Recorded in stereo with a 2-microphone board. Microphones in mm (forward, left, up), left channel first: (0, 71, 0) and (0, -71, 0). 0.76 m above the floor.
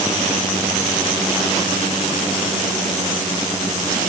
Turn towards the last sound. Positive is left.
No sound to turn to.